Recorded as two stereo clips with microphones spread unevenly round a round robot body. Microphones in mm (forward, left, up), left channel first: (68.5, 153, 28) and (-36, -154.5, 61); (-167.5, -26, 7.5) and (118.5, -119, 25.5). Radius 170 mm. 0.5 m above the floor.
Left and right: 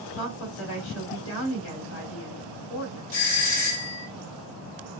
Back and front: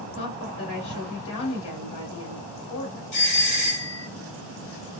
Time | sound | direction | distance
0.1 | a woman speaking | 120° left | 2 m
3.1 | a doorbell | 100° left | 3 m